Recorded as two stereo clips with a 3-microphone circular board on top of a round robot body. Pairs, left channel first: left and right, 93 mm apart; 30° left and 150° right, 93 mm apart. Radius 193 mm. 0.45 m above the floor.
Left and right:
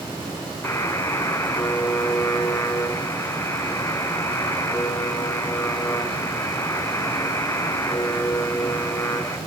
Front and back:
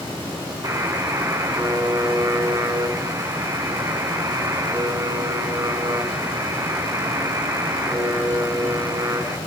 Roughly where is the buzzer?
Behind left.